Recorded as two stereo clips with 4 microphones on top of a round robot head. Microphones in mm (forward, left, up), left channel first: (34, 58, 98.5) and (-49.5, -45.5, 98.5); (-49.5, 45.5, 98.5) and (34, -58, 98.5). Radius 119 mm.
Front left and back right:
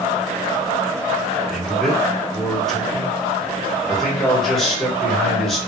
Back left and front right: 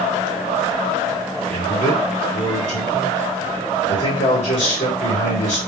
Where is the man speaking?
140° left, 2.5 m.